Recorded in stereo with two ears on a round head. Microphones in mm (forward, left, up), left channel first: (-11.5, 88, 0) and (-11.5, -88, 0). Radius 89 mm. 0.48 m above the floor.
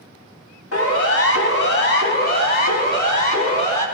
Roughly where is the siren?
Left.